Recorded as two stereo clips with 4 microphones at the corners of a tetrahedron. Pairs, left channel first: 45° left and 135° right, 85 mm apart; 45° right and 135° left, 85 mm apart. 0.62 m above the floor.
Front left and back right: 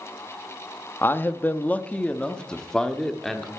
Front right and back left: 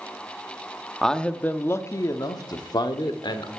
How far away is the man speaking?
About 0.8 m.